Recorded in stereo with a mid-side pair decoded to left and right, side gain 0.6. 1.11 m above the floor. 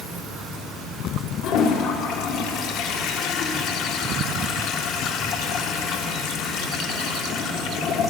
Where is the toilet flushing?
70° left, 0.7 m.